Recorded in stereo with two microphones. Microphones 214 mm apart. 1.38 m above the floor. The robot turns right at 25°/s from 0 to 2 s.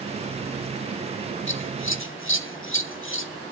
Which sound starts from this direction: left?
Scissors, at 1.5 s.